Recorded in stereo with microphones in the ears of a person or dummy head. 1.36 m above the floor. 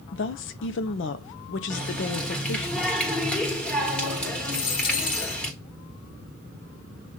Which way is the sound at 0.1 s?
65° left (ahead or behind).